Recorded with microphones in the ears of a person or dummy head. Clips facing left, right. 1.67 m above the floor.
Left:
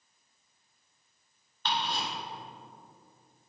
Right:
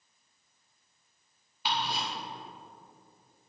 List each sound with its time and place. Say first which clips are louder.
1.6 s ticking: even; centre (ahead or behind), 1.7 m